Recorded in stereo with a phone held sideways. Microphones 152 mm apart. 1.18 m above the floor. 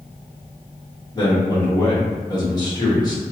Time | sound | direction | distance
1.1 | a man speaking | 30° left (ahead or behind) | 1.5 m